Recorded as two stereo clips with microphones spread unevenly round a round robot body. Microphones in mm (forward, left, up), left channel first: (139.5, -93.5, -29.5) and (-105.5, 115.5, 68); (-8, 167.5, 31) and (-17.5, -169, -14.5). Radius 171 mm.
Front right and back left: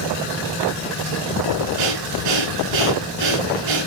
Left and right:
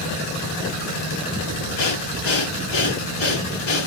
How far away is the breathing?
About 3.5 m.